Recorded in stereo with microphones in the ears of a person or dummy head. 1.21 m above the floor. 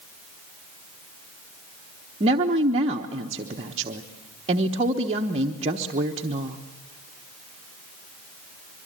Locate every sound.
2.2 s a woman speaking: 35° right (ahead or behind), 1.2 m